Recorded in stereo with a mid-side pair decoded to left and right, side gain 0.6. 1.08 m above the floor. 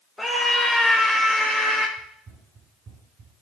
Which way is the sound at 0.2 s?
10° left.